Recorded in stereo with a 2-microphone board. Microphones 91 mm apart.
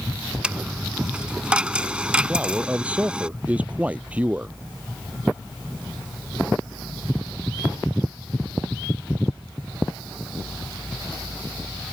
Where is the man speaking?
15° right (ahead or behind).